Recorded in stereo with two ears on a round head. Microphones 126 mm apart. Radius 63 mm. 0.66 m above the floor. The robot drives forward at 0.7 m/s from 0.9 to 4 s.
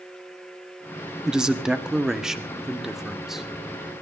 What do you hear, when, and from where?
1.2 s a man speaking: 5° right (ahead or behind), 1.1 m